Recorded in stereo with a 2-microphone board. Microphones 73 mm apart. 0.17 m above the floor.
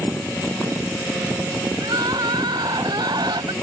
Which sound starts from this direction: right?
Crying, at 1.8 s.